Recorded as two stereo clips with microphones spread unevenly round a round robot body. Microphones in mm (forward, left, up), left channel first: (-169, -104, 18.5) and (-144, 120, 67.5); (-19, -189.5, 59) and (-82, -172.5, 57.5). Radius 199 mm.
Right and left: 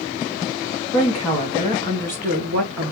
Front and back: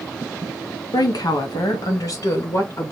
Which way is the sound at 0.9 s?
15° right.